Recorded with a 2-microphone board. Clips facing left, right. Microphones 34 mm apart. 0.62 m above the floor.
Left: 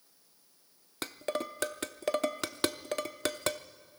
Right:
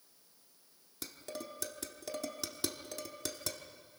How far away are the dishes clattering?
About 0.7 m.